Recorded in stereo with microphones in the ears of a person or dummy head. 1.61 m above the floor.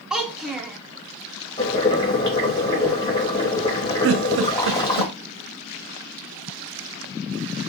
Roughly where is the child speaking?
Centre.